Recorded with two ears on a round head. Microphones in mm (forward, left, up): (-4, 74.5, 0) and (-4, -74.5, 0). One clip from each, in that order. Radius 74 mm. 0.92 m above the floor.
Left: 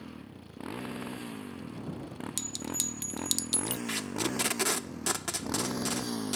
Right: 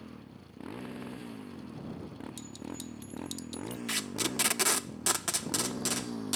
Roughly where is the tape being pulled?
Centre.